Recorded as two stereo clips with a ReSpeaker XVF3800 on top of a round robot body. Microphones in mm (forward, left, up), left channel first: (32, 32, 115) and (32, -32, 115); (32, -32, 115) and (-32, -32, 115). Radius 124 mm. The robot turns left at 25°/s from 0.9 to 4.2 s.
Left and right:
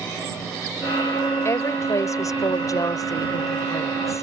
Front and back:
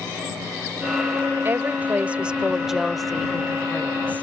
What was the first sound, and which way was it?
A woman speaking, 130° left.